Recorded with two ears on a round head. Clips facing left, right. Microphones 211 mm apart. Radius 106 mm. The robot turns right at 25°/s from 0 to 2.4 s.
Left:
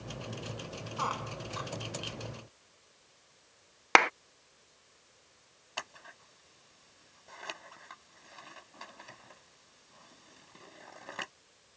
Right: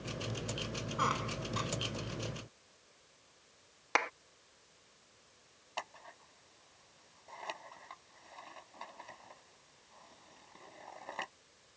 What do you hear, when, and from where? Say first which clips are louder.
1.0 s a squeak: right 1 dB; 25° right (ahead or behind); by 1.7 s 45° right (ahead or behind)
4.0 s a clap: left 9 dB; 75° left (ahead or behind)
5.8 s scissors: right 1 dB; 20° left (ahead or behind)